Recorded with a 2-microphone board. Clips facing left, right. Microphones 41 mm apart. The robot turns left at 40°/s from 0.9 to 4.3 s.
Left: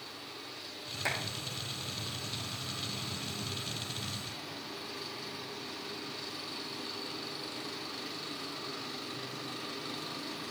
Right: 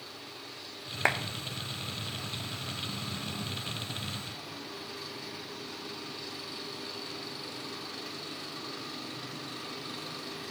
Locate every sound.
1.1 s a clap: 50° right (ahead or behind), 1.2 m; by 1.1 s 55° right (ahead or behind), 1.2 m